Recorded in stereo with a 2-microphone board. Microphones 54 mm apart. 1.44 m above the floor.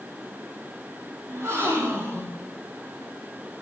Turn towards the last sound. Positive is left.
turn(degrees=-55)  # may be behind; listen again after turning